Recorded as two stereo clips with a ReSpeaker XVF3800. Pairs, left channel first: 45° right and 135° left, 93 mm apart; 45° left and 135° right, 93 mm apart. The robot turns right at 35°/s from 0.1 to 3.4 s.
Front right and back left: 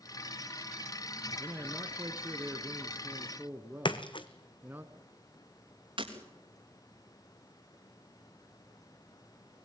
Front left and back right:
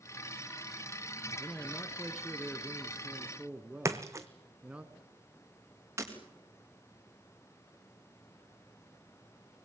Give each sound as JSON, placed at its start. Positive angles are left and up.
{"t": 1.4, "sound": "a man speaking", "azimuth_deg": 95, "distance_m": 1.4}
{"t": 3.9, "sound": "a splash", "azimuth_deg": -80, "distance_m": 1.1}
{"t": 6.0, "sound": "breaking glass", "azimuth_deg": 165, "distance_m": 4.0}